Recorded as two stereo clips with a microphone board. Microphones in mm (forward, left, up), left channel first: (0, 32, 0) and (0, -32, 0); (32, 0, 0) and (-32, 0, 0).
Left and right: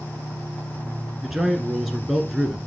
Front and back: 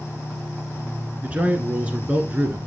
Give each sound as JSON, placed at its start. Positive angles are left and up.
{"t": 1.2, "sound": "a man speaking", "azimuth_deg": -170, "distance_m": 1.3}